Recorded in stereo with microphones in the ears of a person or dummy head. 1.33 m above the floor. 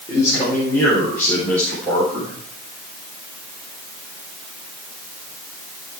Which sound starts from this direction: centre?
A man speaking, at 0.1 s.